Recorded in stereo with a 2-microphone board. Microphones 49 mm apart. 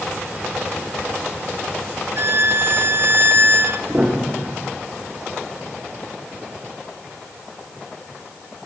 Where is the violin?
50° right (ahead or behind), 1.0 m.